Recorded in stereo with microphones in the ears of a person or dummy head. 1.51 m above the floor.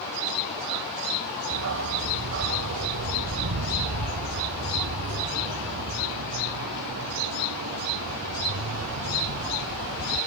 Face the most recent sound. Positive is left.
turn(degrees=-85)